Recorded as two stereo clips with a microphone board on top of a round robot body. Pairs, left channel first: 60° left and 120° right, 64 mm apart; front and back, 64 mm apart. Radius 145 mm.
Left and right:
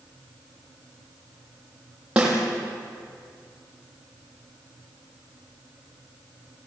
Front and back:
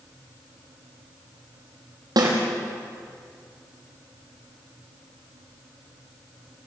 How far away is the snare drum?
About 5.5 m.